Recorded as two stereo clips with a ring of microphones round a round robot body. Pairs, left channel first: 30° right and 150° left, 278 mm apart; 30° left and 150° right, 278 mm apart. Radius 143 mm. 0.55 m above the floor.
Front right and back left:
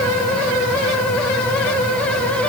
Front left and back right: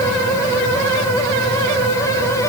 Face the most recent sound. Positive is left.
No sound to turn to.